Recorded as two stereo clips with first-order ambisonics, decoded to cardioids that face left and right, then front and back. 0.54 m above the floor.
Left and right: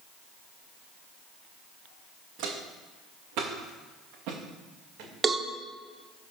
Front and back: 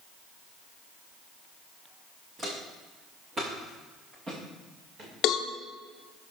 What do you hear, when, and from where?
2.4 s footsteps: 100° right, 2.0 m; by 5.1 s 115° right, 3.5 m
5.2 s a cowbell: 20° right, 0.6 m